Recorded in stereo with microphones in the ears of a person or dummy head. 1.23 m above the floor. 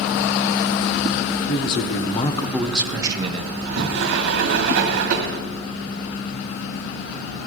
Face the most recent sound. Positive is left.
turn(degrees=-65)  # may be behind; listen again after turning